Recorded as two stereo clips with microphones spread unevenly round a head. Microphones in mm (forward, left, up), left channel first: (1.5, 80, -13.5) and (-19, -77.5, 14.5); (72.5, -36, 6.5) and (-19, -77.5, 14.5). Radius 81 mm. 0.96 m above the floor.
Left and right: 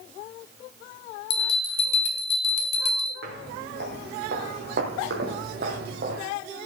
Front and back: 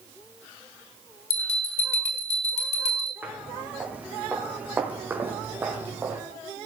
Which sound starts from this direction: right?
Footsteps, at 3.2 s.